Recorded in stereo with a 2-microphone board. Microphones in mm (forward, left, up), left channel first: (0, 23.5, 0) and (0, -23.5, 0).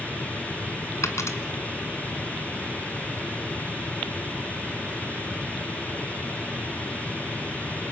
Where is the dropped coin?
75° left (ahead or behind), 1.9 m.